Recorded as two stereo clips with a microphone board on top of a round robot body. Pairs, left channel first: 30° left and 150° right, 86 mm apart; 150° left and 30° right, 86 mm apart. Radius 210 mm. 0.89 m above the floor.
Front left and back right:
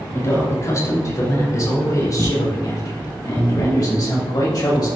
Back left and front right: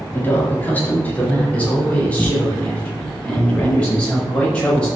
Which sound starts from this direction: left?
A man speaking, at 0.1 s.